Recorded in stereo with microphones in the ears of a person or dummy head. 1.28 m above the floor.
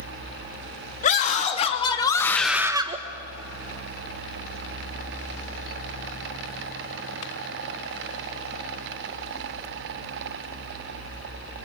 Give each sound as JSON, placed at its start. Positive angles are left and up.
{"t": 1.0, "sound": "a scream", "side_deg": 35, "distance_m": 2.5}